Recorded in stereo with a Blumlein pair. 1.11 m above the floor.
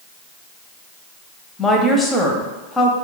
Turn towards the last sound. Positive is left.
turn(degrees=10)